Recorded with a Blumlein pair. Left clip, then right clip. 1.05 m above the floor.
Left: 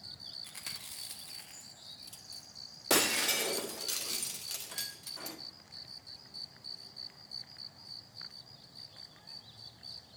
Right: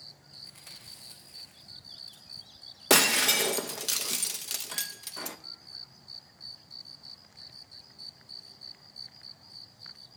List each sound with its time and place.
0.4 s chewing: 35° left, 1.5 m
2.9 s breaking glass: 65° right, 0.6 m